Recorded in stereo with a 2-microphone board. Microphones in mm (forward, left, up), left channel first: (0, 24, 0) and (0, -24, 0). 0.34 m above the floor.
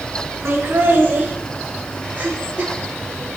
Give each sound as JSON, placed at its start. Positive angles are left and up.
{"t": 0.5, "sound": "laughter", "side_deg": -45, "distance_m": 3.5}